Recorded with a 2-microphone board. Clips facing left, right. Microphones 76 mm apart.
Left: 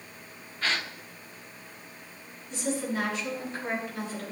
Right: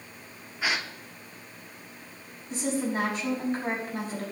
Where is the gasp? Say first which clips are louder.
Right 1 dB; 10° right (ahead or behind), 1.0 m.